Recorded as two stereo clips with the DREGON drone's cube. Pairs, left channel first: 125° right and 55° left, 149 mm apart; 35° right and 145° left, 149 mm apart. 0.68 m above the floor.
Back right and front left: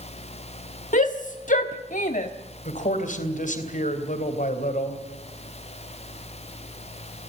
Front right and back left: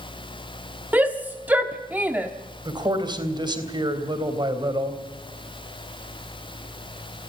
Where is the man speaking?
155° right, 3.5 m.